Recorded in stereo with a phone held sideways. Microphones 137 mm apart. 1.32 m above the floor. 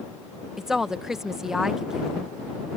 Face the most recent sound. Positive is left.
turn(degrees=-5)  # may be behind; listen again after turning